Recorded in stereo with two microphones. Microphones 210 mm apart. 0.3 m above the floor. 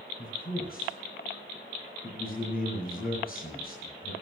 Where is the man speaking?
45° left (ahead or behind), 5.5 m.